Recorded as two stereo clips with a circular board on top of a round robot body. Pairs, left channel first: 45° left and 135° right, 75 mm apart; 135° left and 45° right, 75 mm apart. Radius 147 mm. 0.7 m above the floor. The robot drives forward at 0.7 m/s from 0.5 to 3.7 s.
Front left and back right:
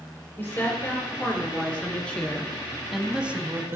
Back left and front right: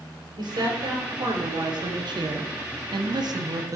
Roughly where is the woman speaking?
Ahead.